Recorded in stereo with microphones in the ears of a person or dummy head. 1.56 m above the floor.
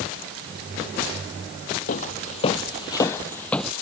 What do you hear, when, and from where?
1.9 s footsteps: 35° left (ahead or behind); by 3.7 s 5° left (ahead or behind)